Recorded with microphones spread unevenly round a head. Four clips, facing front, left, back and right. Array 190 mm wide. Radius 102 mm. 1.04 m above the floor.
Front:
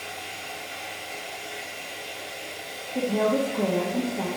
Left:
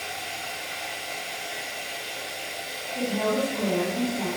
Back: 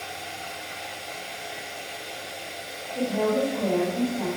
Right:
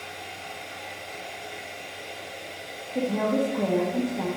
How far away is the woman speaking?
About 1.3 m.